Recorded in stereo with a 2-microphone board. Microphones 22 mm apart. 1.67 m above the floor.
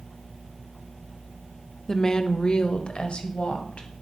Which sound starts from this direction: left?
A woman speaking, at 1.9 s.